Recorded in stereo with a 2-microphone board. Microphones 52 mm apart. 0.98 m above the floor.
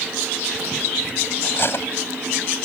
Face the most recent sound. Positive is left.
turn(degrees=50)  # may be behind; listen again after turning